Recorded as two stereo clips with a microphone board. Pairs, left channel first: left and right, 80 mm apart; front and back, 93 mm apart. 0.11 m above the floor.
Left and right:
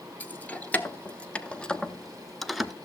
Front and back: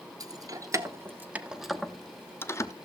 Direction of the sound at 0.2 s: 155° left.